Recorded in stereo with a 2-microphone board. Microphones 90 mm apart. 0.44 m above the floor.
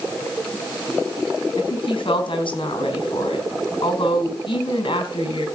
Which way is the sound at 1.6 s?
65° left (ahead or behind).